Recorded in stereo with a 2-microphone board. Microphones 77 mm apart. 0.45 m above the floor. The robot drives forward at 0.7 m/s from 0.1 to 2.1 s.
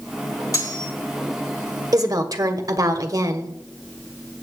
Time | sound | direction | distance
0.5 | cutlery clinking | 50° left (ahead or behind) | 2.5 m
1.9 | a woman speaking | 55° right (ahead or behind) | 1.4 m